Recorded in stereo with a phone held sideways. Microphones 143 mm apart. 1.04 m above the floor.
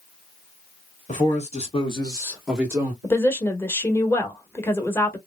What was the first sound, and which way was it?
A man speaking, 55° left (ahead or behind).